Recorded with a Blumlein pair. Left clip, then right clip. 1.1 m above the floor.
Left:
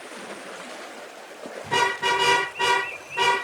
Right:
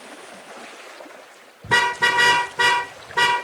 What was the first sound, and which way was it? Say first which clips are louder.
A car horn: right 4 dB; 30° right.